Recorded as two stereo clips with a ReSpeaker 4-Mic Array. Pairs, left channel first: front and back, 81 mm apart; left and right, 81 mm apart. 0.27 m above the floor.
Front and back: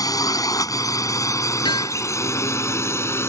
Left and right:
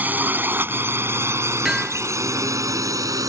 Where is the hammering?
5° right.